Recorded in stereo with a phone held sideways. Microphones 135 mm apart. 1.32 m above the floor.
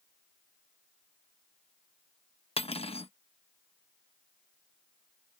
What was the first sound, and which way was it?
Cutlery clinking, 50° left (ahead or behind).